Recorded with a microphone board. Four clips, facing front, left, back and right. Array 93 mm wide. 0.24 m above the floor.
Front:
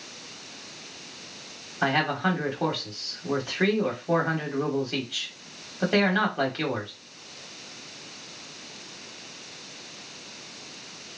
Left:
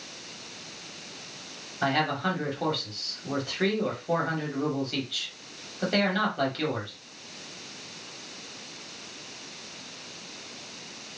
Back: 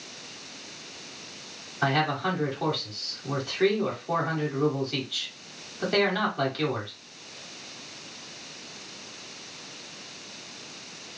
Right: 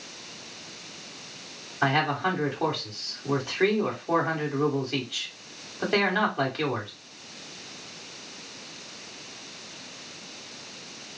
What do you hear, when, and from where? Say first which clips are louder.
1.8 s a man speaking: right 2 dB, front 1 dB; 40° right, 1.2 m